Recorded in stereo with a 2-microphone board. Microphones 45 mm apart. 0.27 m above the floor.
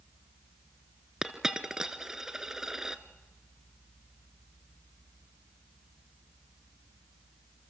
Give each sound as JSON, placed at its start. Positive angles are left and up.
{"t": 1.2, "sound": "a dropped coin", "side_deg": -10, "distance_m": 0.9}